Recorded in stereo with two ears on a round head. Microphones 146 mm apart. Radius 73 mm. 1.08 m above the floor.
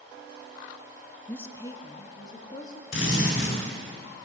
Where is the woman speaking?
10° left (ahead or behind), 0.5 m; by 2.8 s 25° left (ahead or behind), 1.8 m.